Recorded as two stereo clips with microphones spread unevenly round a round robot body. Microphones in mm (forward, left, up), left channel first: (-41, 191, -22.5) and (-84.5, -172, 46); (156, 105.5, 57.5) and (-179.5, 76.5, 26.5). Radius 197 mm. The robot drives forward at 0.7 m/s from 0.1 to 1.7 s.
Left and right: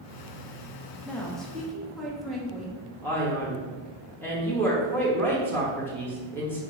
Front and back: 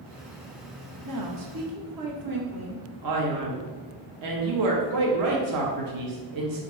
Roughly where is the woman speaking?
Behind.